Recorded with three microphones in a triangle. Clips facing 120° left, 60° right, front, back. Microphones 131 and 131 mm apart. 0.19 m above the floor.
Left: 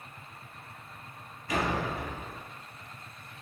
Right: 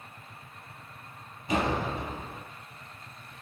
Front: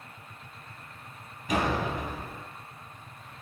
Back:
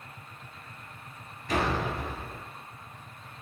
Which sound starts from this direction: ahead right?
A door slam, at 1.5 s.